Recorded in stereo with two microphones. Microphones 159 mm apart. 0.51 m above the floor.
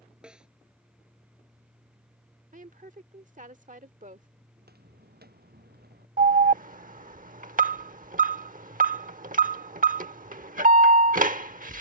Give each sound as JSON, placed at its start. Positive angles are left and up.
{"t": 0.2, "sound": "a snare drum", "side_deg": -5}
{"t": 2.5, "sound": "a woman speaking", "side_deg": -55}
{"t": 4.6, "sound": "footsteps", "side_deg": -85}
{"t": 6.2, "sound": "an alarm", "side_deg": -60}